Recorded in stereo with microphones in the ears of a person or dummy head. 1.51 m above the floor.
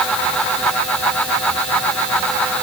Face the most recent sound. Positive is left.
No sound to turn to.